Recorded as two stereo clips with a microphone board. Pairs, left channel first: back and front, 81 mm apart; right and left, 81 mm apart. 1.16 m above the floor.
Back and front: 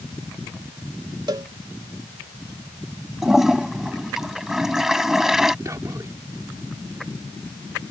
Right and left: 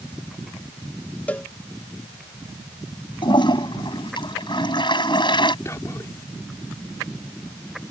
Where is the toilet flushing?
85° right.